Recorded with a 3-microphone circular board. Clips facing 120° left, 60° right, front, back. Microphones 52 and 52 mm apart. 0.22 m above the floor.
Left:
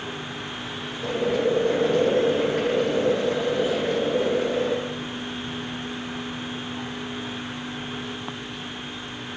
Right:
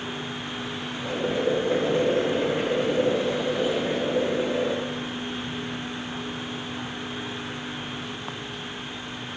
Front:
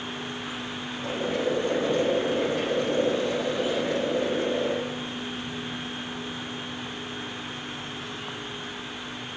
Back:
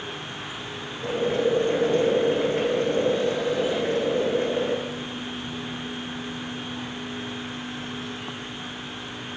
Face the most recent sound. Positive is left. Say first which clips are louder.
# left 3 dB, back 4 dB
turn(degrees=130)